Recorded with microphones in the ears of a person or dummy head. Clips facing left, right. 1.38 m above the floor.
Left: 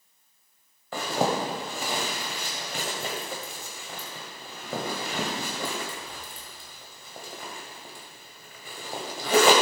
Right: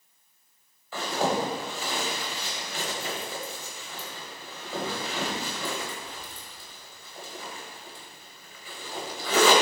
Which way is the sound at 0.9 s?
45° left (ahead or behind).